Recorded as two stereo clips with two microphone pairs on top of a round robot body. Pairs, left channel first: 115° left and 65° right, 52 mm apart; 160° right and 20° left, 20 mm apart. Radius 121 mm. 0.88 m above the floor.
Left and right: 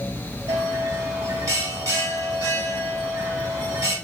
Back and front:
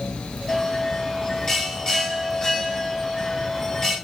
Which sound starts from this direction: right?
A bell, at 0.5 s.